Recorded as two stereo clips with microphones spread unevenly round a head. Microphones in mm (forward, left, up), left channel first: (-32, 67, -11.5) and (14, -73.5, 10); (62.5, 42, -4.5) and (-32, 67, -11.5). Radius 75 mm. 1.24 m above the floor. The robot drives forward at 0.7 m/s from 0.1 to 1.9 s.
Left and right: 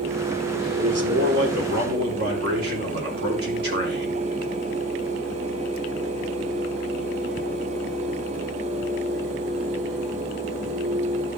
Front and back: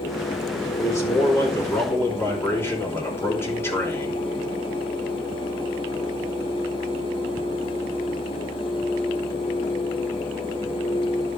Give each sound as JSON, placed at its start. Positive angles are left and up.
{"t": 0.8, "sound": "a man speaking", "azimuth_deg": -80, "distance_m": 4.0}